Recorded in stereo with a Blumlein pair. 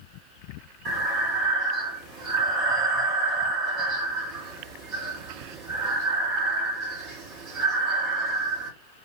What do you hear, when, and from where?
0.8 s breathing: 30° right, 1.3 m